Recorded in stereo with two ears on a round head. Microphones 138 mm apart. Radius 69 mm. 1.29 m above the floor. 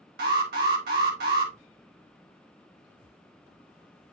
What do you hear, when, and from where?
0.2 s an alarm: 65° right (ahead or behind), 3 m